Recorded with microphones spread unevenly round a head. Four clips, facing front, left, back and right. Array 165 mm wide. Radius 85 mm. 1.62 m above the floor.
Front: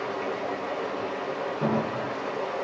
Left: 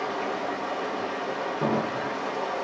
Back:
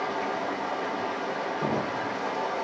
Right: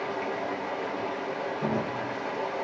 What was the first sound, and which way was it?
Running water, 125° left.